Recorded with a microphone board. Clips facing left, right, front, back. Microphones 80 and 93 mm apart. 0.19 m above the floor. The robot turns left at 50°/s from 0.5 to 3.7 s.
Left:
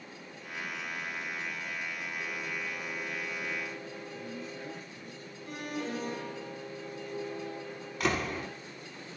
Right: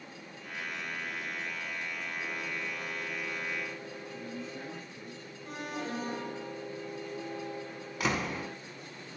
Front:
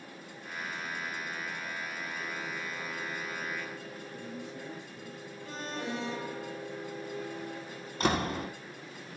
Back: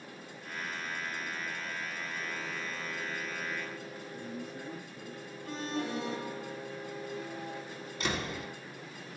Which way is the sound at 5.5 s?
135° right.